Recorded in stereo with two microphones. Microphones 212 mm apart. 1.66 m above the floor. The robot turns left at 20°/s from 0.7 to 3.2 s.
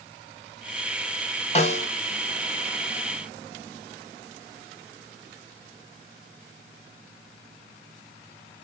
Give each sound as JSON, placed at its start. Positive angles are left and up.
{"t": 1.6, "sound": "a snare drum", "side_deg": 30, "distance_m": 0.9}